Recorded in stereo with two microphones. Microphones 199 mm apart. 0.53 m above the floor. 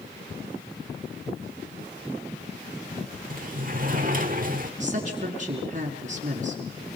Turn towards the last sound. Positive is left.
turn(degrees=-40)  # may be behind; listen again after turning